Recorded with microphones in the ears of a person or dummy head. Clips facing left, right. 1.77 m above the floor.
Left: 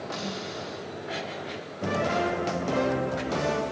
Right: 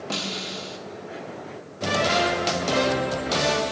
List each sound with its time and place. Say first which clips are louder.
0.1 s a snare drum: right 3 dB; 45° right (ahead or behind), 5.5 m